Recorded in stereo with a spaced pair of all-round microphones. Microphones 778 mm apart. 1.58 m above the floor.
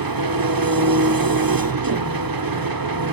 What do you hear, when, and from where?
0.0 s an engine running: 30° right (ahead or behind), 0.7 m